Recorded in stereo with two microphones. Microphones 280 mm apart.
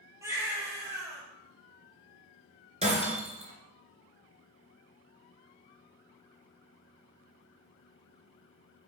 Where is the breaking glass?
25° right (ahead or behind), 2 m.